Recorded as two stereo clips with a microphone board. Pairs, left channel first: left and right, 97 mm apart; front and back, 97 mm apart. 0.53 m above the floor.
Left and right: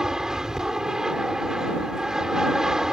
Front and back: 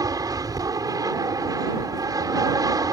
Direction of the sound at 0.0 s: 170° right.